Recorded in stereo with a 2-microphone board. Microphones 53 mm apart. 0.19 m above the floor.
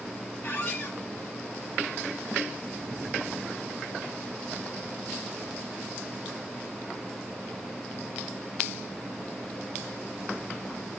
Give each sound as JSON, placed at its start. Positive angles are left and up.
{"t": 0.4, "sound": "a squeak", "side_deg": 45, "distance_m": 0.6}